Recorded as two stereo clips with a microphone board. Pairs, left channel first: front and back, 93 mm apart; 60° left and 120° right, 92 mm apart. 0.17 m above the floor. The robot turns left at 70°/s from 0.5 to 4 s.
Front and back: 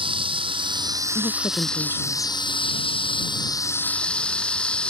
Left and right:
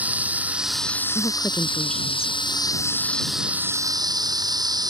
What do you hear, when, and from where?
0.0 s running water: 165° left; by 4.9 s 80° right
1.1 s a woman speaking: 35° left; by 2.4 s 50° right